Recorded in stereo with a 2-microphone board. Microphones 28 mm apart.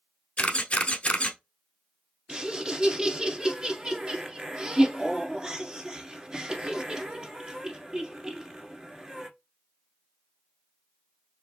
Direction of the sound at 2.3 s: 30° right (ahead or behind).